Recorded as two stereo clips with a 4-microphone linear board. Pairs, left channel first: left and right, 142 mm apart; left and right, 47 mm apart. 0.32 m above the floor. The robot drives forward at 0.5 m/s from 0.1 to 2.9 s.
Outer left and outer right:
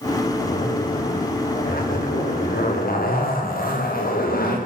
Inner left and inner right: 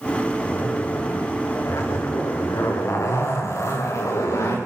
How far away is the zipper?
About 8.5 m.